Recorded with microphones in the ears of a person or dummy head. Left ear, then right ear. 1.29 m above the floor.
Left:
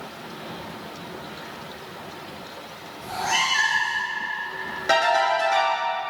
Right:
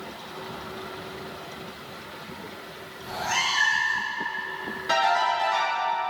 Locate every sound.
3.0 s a cat meowing: 30° left (ahead or behind), 1.3 m
4.9 s a ringtone: 50° left (ahead or behind), 1.8 m